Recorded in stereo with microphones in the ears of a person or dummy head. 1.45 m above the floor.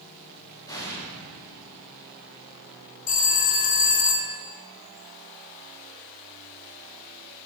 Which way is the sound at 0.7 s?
15° left (ahead or behind).